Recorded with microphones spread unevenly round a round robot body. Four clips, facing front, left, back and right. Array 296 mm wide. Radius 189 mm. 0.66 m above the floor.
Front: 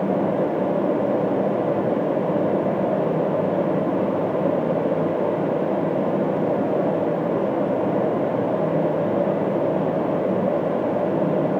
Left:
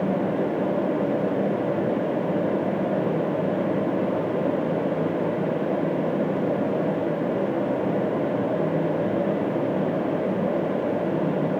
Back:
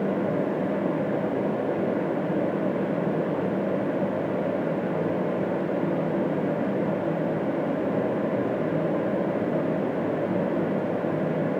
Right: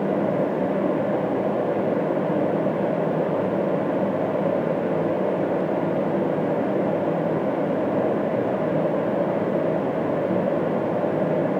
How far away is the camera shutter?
I don't hear a camera shutter.